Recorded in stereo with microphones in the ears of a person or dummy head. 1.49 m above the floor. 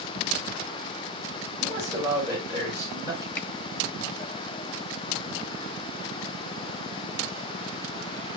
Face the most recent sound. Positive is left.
turn(degrees=5)  # may be behind; listen again after turning